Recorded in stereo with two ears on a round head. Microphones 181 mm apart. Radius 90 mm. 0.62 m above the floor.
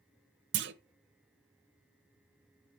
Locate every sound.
0.5 s a clunk: 65° right (ahead or behind), 0.6 m